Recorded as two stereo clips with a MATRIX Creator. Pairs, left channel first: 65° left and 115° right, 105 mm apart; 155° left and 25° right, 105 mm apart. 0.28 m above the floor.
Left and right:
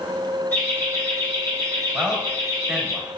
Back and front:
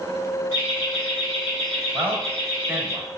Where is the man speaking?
40° right, 0.9 m.